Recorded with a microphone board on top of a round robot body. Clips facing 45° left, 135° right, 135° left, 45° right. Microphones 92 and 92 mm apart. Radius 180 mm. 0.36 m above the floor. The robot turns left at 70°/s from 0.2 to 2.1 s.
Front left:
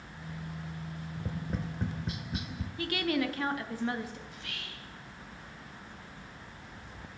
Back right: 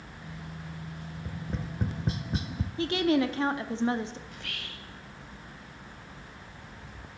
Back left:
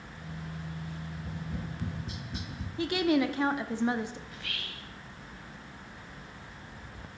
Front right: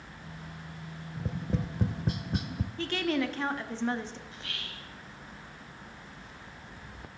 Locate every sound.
1.2 s tapping: 15° right, 0.6 m; by 2.7 s 80° right, 0.6 m
2.8 s a woman speaking: 160° right, 1.0 m
4.3 s whispering: 105° right, 2 m